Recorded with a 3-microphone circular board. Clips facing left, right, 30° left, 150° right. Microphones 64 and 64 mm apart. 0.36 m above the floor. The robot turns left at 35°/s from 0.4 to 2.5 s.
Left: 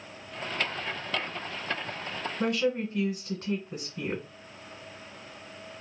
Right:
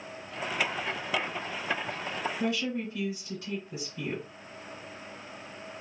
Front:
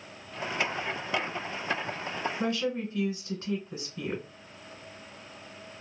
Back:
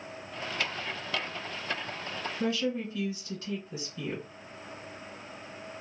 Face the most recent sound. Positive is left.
turn(degrees=60)